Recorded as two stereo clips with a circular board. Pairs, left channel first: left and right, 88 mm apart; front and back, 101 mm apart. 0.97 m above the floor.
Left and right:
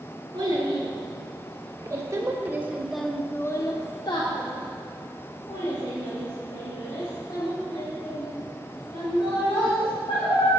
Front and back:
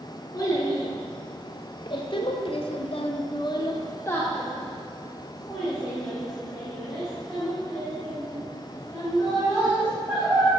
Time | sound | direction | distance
0.3 | a child speaking | 55° right | 1.6 m